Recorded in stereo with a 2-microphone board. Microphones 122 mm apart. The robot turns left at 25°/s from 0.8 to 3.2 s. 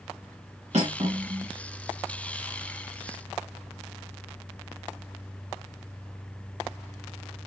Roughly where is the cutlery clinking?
Right.